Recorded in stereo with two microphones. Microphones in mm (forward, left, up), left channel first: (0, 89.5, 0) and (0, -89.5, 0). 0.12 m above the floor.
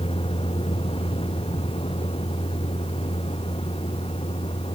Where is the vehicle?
30° left (ahead or behind); by 4.8 s 35° left (ahead or behind).